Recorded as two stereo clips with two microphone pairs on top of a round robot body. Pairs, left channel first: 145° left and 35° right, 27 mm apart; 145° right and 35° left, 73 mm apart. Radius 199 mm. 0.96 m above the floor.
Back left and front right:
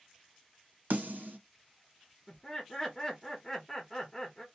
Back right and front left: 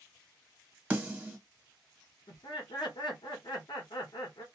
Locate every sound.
0.9 s a snare drum: 30° right, 1.4 m
2.3 s laughter: 140° right, 1.2 m